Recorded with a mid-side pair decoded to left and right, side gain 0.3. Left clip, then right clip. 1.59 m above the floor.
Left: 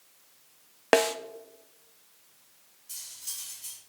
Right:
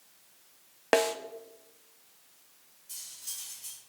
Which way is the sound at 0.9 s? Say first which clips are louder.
Left 3 dB; 35° left.